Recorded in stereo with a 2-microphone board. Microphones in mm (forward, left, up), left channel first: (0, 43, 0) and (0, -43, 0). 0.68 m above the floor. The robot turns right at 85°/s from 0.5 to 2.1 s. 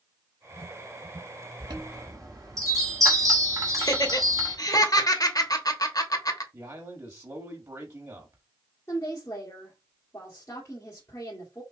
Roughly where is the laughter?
Left.